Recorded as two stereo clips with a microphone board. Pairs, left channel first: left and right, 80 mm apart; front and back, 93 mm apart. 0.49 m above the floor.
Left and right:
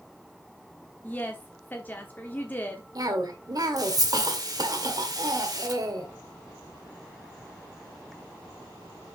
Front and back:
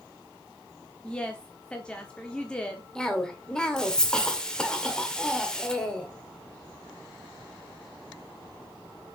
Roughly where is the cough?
Right.